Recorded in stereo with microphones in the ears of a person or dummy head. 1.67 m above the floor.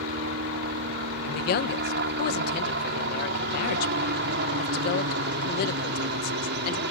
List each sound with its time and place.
0.0 s a helicopter: 55° right (ahead or behind)
1.2 s a man speaking: 65° left (ahead or behind)